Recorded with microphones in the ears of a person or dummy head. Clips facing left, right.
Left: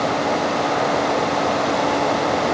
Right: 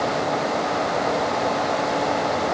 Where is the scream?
I don't hear a scream.